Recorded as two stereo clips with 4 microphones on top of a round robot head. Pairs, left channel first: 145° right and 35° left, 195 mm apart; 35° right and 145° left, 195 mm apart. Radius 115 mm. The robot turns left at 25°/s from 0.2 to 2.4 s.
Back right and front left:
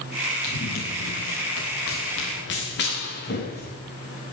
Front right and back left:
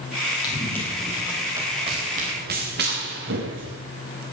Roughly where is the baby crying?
I don't hear a baby crying.